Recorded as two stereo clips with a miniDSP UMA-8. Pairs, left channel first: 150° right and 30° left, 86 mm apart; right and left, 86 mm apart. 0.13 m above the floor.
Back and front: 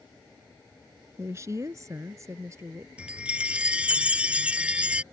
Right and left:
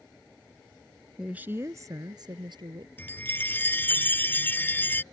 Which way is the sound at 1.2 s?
15° left.